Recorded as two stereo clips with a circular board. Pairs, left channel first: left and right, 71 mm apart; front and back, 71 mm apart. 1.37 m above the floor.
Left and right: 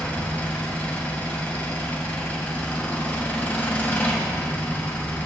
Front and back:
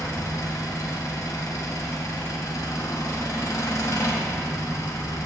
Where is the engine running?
25° left, 2 m.